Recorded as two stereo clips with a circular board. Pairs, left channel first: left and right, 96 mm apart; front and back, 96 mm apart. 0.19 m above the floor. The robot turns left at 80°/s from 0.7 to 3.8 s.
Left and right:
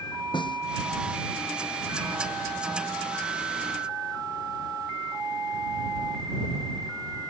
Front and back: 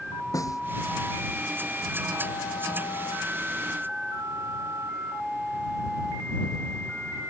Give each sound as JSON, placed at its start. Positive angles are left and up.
{"t": 0.3, "sound": "a snare drum", "azimuth_deg": 55}